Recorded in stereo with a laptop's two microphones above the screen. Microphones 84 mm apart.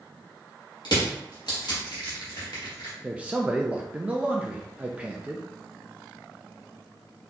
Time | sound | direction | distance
0.8 | crushing | 60° left (ahead or behind) | 1.8 m
3.0 | a man speaking | 15° right (ahead or behind) | 0.6 m